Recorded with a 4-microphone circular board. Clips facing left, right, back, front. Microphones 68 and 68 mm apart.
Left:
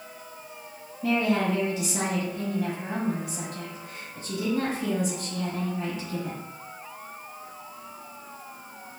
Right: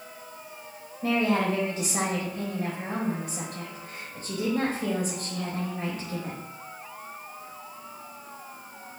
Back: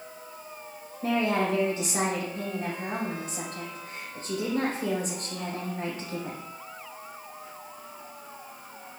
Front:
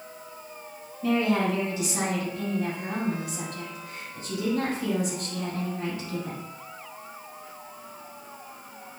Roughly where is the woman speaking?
Behind right.